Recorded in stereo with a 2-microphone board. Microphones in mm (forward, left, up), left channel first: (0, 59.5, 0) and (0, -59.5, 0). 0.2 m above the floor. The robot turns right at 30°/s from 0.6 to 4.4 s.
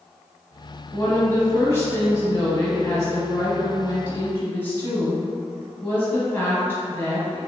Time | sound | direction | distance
0.9 | a woman speaking | 15° left (ahead or behind) | 1.2 m